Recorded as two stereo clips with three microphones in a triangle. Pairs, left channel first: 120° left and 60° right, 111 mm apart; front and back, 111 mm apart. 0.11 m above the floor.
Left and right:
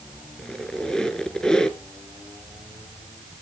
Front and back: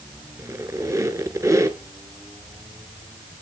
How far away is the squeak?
About 0.9 m.